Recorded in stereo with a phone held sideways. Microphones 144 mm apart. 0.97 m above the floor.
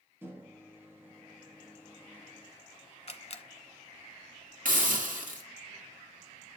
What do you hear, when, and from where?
0.2 s a microwave: 15° right (ahead or behind), 1.3 m
3.1 s a camera shutter: 45° left (ahead or behind), 1.0 m
4.7 s a hiss: 80° right, 1.5 m